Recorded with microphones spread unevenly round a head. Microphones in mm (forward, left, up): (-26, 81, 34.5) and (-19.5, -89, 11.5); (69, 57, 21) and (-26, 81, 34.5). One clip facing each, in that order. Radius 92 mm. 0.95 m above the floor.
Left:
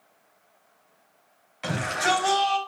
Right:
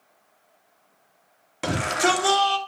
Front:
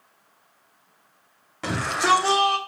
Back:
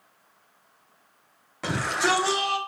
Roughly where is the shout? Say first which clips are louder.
Right 4 dB, front 3 dB; right.